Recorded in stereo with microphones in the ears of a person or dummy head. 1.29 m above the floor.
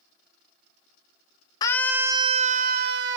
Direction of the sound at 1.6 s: 20° left (ahead or behind).